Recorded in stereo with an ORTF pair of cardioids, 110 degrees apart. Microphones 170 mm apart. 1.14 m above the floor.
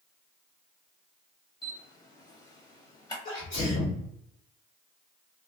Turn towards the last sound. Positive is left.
turn(degrees=55)